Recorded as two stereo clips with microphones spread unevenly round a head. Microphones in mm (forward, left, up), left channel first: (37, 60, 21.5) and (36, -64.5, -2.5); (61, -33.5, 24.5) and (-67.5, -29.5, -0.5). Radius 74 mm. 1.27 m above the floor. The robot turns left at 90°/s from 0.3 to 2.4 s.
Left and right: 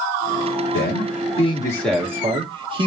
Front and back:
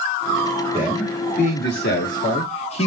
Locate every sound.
0.7 s a man speaking: 105° left, 2.5 m; by 2.9 s 45° right, 2.5 m